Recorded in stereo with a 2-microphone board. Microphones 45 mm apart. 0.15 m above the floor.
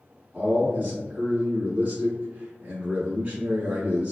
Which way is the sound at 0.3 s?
25° right (ahead or behind).